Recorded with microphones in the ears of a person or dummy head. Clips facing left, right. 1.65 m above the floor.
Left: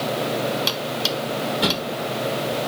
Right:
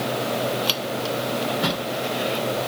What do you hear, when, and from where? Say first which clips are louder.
1.6 s a drawer: left 2 dB; 45° left (ahead or behind), 1.7 m